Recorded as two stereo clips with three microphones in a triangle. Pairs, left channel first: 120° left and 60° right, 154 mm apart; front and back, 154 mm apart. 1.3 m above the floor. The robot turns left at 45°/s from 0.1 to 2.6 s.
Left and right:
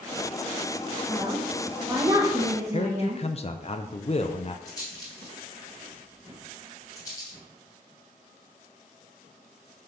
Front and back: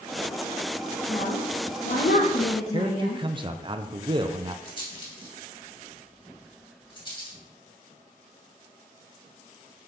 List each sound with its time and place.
1.1 s a woman speaking: 50° left, 1.3 m; by 3.2 s 20° right, 1.3 m
2.7 s a man speaking: 140° left, 0.6 m
4.7 s a rattle: 55° left, 2.5 m